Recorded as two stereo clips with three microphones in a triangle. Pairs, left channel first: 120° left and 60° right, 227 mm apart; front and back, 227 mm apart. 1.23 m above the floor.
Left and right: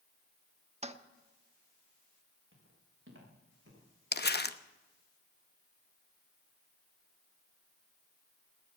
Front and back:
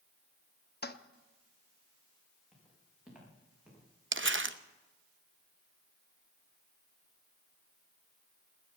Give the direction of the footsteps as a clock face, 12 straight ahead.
3 o'clock.